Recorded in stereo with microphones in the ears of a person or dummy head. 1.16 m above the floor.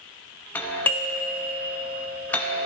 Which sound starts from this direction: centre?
A doorbell, at 0.6 s.